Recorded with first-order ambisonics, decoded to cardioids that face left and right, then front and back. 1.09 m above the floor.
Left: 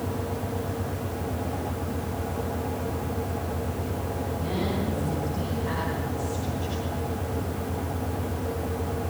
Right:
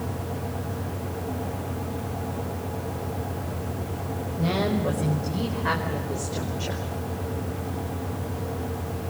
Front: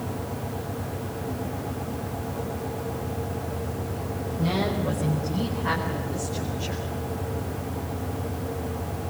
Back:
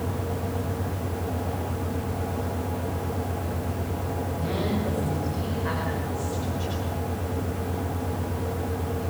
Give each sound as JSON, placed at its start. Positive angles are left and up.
{"t": 4.4, "sound": "a woman speaking", "azimuth_deg": -80, "distance_m": 5.0}